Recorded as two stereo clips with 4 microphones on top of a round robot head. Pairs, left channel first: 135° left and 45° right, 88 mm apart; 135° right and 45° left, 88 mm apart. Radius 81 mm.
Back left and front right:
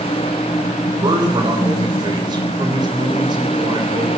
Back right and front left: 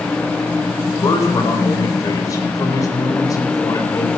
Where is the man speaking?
85° right, 4 m.